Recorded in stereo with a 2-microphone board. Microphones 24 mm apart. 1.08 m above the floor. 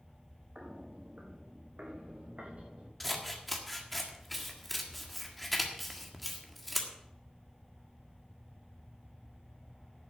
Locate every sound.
0.6 s footsteps: 60° right (ahead or behind), 2.5 m; by 2.9 s 75° right (ahead or behind), 4 m
3.0 s scissors: centre (ahead or behind), 1.6 m